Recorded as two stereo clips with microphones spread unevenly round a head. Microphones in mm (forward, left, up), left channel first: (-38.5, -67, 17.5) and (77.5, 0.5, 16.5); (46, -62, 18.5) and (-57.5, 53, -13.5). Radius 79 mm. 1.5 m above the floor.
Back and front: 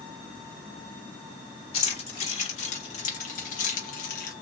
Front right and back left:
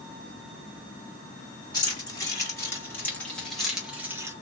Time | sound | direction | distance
1.7 | keys jangling | 110° right | 2 m